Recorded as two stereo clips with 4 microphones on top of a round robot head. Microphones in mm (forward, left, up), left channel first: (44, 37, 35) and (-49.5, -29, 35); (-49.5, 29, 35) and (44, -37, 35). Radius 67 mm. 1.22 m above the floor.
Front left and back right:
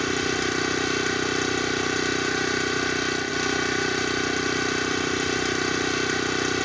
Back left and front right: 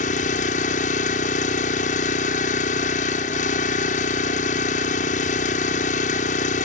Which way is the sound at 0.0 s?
125° left.